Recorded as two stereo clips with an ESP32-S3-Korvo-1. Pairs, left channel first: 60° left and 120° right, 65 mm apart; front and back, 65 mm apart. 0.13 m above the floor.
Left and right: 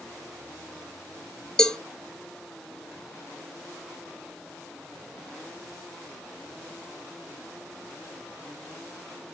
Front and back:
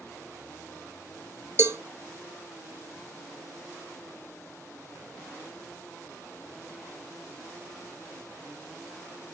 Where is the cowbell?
140° left, 0.5 m.